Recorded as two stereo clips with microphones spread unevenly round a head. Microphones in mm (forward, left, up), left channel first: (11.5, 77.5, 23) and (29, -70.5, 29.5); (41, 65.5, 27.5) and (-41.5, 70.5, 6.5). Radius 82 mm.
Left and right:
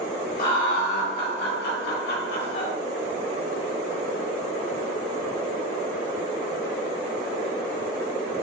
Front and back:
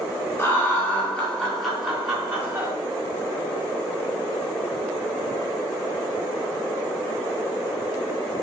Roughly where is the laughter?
Ahead left.